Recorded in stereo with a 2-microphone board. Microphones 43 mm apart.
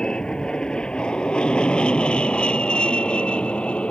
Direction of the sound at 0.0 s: 20° left (ahead or behind).